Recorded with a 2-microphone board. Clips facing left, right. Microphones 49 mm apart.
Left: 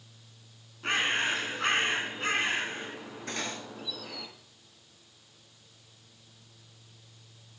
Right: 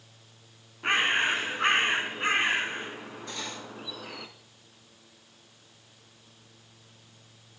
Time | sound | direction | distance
0.8 | a bird | 25° right (ahead or behind) | 0.8 m
3.3 | cutlery clinking | 55° left (ahead or behind) | 1.3 m